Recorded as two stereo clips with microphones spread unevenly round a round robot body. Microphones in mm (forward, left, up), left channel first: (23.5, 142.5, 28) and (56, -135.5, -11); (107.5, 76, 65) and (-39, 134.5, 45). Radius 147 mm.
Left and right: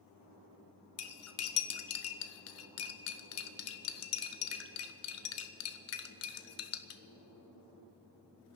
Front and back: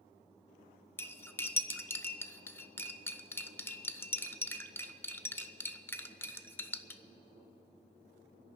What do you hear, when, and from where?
1.0 s cutlery clinking: 60° left, 0.9 m